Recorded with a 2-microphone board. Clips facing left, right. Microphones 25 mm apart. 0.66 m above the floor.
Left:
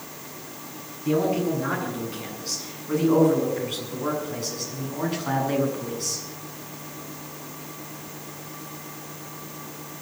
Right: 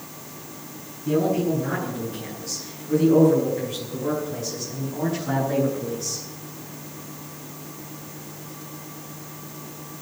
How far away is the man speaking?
About 8.5 m.